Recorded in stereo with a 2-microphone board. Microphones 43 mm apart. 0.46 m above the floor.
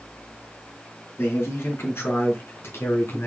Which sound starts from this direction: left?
A man speaking, at 1.2 s.